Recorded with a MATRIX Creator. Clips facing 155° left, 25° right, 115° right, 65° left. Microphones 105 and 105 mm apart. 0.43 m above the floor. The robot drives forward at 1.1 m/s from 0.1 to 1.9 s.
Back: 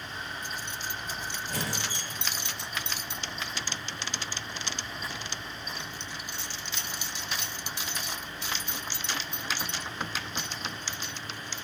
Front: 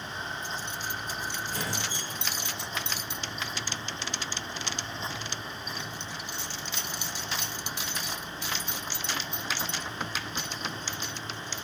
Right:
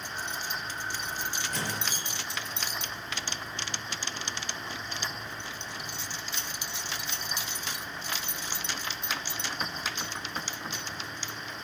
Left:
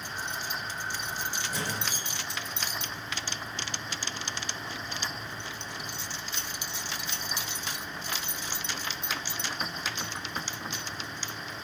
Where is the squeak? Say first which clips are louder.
Even, even; 150° left, 3.5 m.